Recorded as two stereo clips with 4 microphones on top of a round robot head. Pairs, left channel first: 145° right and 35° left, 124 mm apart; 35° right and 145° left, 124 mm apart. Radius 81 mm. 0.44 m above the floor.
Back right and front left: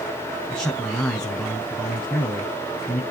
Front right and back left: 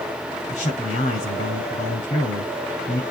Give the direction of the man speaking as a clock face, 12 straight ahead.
2 o'clock.